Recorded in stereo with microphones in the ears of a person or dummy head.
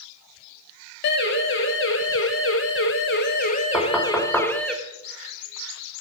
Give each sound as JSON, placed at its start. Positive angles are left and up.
{"t": 1.0, "sound": "a siren", "side_deg": 65, "distance_m": 3.0}
{"t": 3.7, "sound": "knocking", "side_deg": 5, "distance_m": 4.5}